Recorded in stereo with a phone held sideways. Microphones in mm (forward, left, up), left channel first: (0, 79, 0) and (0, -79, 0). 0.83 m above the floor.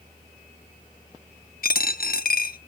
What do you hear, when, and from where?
1.6 s a dropped coin: 70° left (ahead or behind), 0.6 m